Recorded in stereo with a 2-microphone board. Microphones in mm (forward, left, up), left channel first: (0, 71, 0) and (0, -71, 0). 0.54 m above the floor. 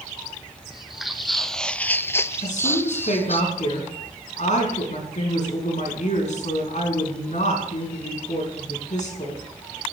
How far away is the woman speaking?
About 6 m.